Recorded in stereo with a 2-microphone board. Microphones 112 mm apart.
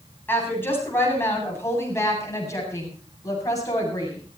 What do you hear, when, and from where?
0.3 s a woman speaking: 20° left (ahead or behind), 8.5 m; by 4.2 s 35° left (ahead or behind), 8 m